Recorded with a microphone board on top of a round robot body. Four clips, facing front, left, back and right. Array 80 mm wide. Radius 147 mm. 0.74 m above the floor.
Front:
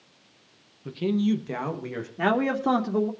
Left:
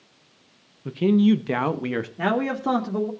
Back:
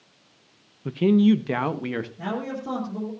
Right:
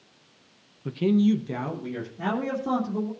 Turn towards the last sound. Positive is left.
turn(degrees=30)